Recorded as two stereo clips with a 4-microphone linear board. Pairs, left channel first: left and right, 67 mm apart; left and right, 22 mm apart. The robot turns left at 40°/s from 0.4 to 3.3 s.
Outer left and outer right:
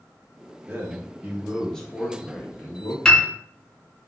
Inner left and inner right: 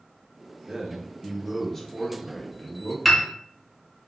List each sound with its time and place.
0.7 s a man speaking: 145° right, 0.8 m; by 3.0 s 125° left, 0.8 m
3.0 s a piano: 15° left (ahead or behind), 0.7 m; by 3.2 s 5° left (ahead or behind), 0.7 m